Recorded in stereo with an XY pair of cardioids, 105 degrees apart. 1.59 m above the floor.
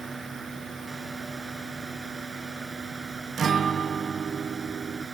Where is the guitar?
50° right.